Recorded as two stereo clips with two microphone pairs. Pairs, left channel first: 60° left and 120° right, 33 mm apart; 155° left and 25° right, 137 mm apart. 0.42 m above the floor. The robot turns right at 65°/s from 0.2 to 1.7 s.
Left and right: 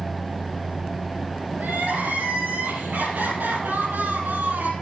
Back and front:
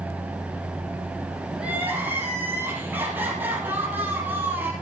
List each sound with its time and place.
1.6 s crying: 110° right, 3.5 m; by 4.7 s 100° right, 3.5 m